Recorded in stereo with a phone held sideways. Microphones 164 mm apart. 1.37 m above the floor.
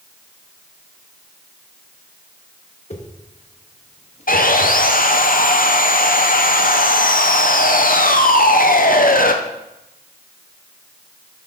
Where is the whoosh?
45° left (ahead or behind), 1.2 m.